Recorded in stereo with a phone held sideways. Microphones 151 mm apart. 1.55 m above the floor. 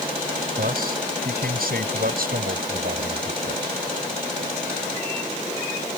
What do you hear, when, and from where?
0.6 s a man speaking: 80° right